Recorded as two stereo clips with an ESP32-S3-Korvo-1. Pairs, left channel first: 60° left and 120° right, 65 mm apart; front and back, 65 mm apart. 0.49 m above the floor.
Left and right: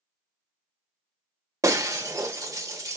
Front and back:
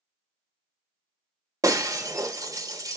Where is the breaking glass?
150° right, 1.1 m.